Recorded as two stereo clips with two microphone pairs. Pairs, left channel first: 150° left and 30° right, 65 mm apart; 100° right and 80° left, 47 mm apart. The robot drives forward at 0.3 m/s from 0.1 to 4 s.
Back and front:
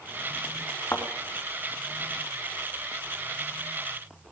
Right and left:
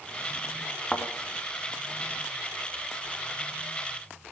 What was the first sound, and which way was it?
A thud, 170° right.